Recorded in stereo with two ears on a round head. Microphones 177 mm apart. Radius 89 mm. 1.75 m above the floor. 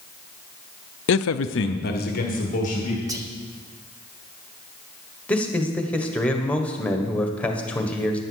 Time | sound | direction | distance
1.1 | a man speaking | 60° left (ahead or behind) | 0.5 m
3.1 | whispering | 15° right (ahead or behind) | 1.3 m
5.3 | a man speaking | 10° left (ahead or behind) | 1.4 m